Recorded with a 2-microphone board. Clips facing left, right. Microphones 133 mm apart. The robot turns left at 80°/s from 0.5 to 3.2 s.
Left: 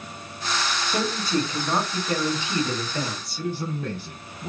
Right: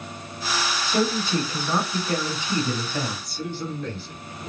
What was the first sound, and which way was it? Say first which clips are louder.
A man speaking: right 4 dB; 100° left.